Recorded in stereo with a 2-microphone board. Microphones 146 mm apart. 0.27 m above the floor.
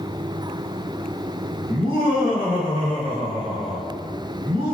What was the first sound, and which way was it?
Laughter, 50° right (ahead or behind).